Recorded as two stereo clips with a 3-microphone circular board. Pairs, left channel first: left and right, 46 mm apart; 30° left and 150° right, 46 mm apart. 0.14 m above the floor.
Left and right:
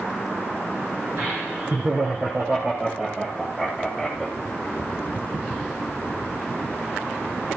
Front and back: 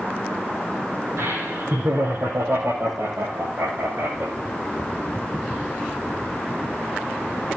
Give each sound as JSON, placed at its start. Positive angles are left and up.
{"t": 1.2, "sound": "laughter", "azimuth_deg": -130, "distance_m": 6.0}